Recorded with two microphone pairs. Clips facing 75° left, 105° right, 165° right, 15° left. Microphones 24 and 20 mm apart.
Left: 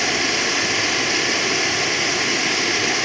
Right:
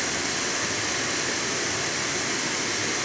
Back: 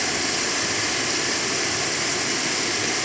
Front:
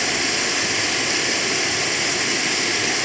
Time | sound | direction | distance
0.0 | running water | 75° left | 0.8 m